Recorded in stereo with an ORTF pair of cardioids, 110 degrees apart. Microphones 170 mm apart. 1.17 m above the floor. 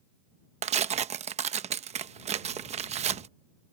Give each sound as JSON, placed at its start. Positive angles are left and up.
{"t": 0.6, "sound": "tearing paper", "azimuth_deg": -40}